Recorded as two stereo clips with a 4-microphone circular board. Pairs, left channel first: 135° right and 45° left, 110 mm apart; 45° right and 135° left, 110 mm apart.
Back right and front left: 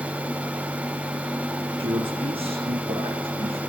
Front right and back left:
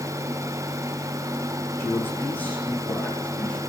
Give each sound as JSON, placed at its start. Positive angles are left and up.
{"t": 1.8, "sound": "a man speaking", "azimuth_deg": 20, "distance_m": 3.0}